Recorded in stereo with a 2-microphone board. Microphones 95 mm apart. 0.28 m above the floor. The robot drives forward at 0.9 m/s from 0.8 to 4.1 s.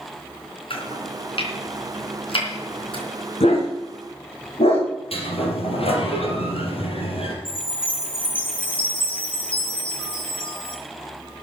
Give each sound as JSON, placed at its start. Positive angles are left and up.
{"t": 0.7, "sound": "chopping", "side_deg": 65, "distance_m": 4.0}
{"t": 3.4, "sound": "a dog barking", "side_deg": 90, "distance_m": 5.0}
{"t": 5.1, "sound": "a sliding door", "side_deg": 85, "distance_m": 3.5}
{"t": 7.5, "sound": "a chime", "side_deg": 60, "distance_m": 6.5}